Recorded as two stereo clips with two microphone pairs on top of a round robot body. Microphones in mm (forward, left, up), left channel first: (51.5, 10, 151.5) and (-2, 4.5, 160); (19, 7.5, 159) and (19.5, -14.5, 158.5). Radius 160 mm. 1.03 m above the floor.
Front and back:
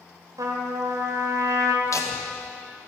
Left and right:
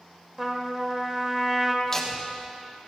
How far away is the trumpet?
About 1.2 m.